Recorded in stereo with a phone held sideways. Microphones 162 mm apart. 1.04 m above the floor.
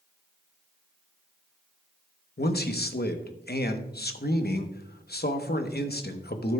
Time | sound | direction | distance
2.4 | a man speaking | 70° left (ahead or behind) | 0.9 m